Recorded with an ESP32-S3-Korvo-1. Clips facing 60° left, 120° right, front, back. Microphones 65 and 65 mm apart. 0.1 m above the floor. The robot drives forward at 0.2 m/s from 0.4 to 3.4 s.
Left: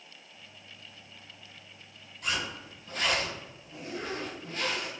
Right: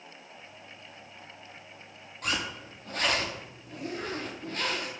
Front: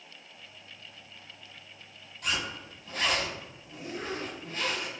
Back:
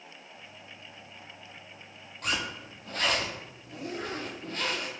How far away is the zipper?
About 0.9 m.